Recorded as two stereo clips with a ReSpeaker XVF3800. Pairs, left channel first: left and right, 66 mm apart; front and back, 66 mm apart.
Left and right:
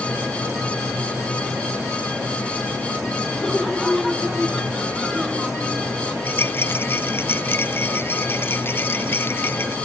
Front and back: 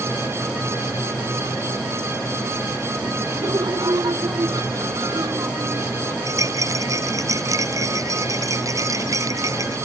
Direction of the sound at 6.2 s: 145° left.